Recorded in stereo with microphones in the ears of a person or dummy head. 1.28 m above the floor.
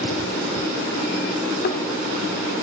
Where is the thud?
50° left (ahead or behind), 1.2 m.